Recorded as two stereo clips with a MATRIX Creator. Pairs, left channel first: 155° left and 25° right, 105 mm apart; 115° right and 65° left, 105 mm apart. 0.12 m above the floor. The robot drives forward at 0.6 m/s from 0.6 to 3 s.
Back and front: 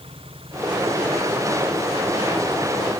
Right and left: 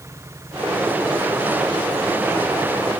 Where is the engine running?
5° left.